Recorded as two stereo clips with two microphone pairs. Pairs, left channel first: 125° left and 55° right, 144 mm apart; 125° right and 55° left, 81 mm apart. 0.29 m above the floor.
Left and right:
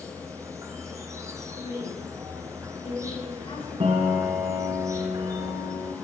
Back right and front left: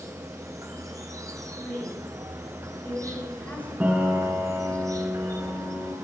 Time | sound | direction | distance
0.0 | an insect | 10° left | 1.0 m
1.6 | a woman speaking | 170° left | 4 m
3.8 | a piano | 15° right | 2 m